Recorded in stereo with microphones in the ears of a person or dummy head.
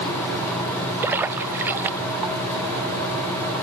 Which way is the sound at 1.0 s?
5° right (ahead or behind).